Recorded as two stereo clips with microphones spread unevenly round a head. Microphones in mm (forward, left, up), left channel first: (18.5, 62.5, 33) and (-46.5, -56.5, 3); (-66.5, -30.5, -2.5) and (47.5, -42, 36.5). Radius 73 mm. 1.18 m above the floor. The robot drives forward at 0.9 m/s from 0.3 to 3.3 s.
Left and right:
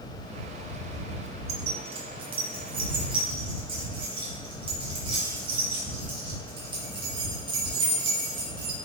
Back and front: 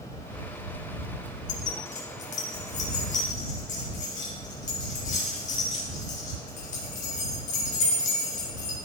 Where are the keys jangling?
165° right, 1.1 m; by 8.8 s 175° right, 2.5 m.